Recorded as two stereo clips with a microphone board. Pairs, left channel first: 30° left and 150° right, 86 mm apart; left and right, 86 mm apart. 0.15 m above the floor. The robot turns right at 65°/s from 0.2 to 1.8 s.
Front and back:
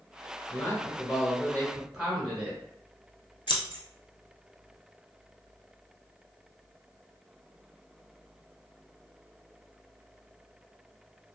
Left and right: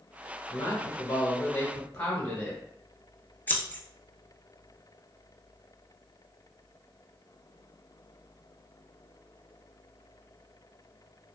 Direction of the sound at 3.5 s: 20° left.